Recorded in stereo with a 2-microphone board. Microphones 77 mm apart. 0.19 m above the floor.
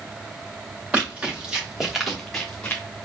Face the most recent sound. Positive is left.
turn(degrees=25)  # may be behind; listen again after turning